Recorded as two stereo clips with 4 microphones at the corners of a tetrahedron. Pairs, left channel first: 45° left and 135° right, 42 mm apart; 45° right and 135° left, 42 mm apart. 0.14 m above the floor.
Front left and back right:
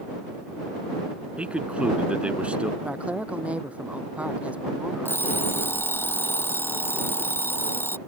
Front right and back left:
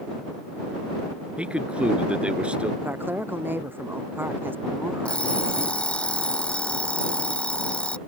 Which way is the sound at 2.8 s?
165° left.